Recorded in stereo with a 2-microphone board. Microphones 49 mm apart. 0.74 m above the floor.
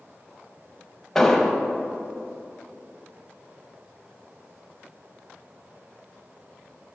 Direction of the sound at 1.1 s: 10° left (ahead or behind).